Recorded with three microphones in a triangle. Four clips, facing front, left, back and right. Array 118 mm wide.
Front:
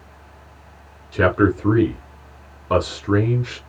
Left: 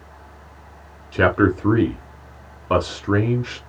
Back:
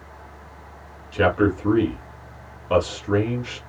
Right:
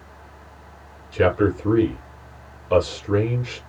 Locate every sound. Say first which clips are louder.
1.1 s a man speaking: left 2 dB, front 2 dB; 75° left, 3.5 m